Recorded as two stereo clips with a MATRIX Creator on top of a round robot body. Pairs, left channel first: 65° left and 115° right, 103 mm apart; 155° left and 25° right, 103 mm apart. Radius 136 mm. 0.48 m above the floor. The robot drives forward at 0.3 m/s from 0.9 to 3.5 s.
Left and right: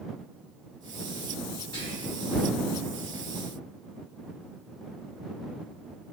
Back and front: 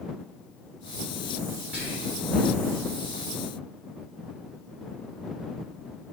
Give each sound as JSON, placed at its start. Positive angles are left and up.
{"t": 1.7, "sound": "whispering", "azimuth_deg": 50, "distance_m": 1.7}